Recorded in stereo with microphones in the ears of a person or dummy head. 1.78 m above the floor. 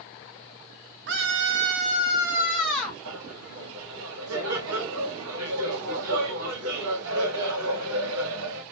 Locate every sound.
1.1 s a scream: 65° right (ahead or behind), 1.1 m; by 3.0 s 15° left (ahead or behind), 1.3 m
3.0 s laughter: 80° right, 2.5 m